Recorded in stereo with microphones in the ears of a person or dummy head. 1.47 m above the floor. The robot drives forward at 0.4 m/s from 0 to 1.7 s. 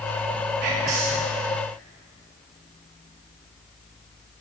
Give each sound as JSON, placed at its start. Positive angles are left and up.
{"t": 0.6, "sound": "whispering", "side_deg": -50, "distance_m": 0.5}